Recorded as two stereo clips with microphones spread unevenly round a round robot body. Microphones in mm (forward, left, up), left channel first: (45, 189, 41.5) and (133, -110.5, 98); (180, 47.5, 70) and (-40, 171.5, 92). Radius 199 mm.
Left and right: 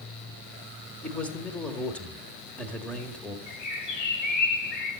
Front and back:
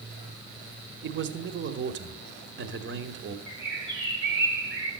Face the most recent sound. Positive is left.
turn(degrees=110)